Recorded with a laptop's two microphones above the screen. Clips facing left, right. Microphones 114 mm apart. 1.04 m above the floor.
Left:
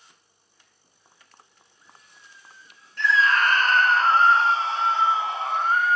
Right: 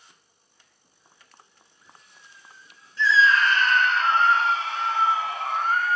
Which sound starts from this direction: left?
A scream, at 3.0 s.